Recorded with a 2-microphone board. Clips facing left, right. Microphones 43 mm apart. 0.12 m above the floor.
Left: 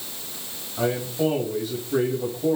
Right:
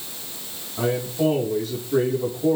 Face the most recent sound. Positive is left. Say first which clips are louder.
# right 1 dB
turn(degrees=0)  # may be behind; listen again after turning